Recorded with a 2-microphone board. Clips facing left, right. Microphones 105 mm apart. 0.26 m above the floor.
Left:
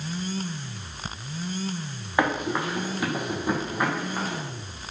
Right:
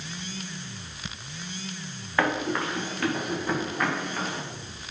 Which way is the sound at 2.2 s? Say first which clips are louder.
Left 1 dB; 15° left (ahead or behind).